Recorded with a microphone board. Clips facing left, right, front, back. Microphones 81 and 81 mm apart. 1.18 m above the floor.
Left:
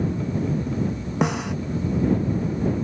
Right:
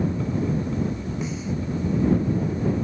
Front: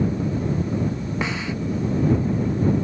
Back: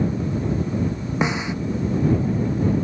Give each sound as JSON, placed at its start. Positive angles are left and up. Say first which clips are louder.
{"t": 1.2, "sound": "a snare drum", "louder": "left 9 dB, back 6 dB", "azimuth_deg": 110}